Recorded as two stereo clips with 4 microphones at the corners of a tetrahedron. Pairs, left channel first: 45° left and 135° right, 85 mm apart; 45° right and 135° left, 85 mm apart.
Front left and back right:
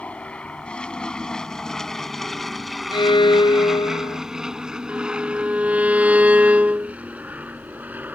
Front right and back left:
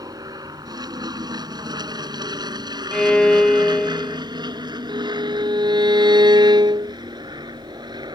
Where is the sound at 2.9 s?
35° left.